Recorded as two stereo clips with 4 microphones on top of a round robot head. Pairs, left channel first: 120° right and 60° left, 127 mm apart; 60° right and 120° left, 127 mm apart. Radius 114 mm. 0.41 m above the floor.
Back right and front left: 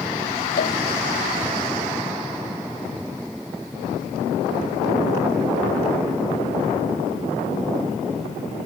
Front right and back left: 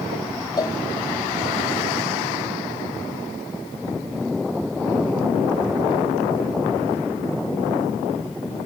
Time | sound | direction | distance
0.6 | a cowbell | 120° right | ?